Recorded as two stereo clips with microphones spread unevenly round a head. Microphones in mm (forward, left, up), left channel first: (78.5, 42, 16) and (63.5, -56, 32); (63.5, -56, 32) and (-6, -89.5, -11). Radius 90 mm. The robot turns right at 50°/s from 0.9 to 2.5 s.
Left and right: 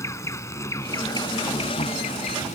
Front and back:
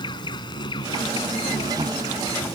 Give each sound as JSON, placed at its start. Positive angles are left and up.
{"t": 0.0, "sound": "an insect", "azimuth_deg": 20}